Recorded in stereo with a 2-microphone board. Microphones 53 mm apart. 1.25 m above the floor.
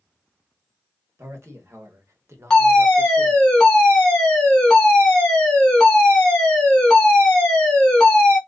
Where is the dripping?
No dripping in this recording.